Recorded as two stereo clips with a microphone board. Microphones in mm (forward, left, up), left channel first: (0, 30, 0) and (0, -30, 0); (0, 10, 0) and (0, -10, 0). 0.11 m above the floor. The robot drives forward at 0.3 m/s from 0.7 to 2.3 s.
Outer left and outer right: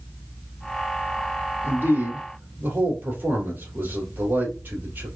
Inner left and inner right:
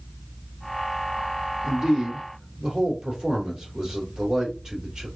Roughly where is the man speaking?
Right.